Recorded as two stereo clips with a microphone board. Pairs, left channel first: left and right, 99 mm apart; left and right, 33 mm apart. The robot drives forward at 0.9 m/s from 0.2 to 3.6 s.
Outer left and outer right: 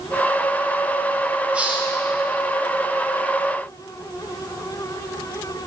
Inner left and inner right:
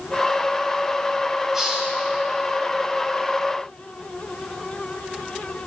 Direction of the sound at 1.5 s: 10° right (ahead or behind).